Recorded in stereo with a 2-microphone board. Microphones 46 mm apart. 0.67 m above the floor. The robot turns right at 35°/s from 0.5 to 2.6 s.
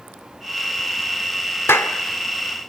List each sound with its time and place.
1.7 s a clap: 65° left (ahead or behind), 1.8 m; by 1.9 s 60° left (ahead or behind), 1.8 m